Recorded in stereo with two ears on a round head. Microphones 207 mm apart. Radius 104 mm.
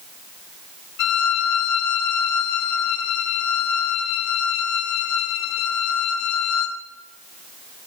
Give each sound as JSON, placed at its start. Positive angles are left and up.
{"t": 1.0, "sound": "a violin", "side_deg": 80, "distance_m": 4.5}